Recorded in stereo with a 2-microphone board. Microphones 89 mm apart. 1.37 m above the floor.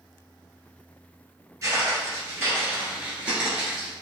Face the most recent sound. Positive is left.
turn(degrees=-5)  # may be behind; listen again after turning